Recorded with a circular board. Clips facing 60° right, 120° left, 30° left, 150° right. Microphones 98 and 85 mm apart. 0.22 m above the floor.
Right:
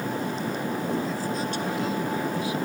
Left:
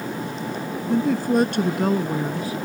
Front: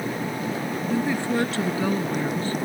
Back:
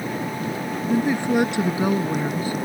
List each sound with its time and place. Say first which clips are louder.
0.9 s a woman speaking: left 8 dB, back 4 dB; 135° left